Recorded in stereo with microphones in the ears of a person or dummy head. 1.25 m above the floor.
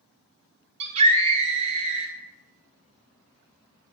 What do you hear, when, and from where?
0.8 s a scream: 40° right (ahead or behind), 1.5 m